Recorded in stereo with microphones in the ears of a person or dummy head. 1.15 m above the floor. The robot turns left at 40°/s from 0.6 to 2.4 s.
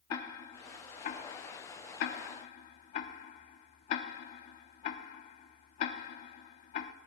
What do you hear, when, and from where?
0.1 s ticking: 25° left (ahead or behind), 0.7 m; by 6.9 s 40° left (ahead or behind), 0.7 m